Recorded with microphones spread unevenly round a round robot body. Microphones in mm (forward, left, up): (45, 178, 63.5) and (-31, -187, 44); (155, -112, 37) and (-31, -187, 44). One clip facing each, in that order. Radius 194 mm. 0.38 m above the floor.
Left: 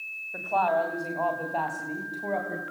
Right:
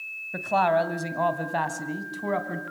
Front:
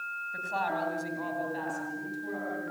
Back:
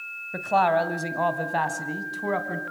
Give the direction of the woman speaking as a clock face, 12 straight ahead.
5 o'clock.